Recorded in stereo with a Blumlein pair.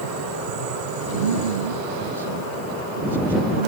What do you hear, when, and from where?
1.1 s a man speaking: 70° right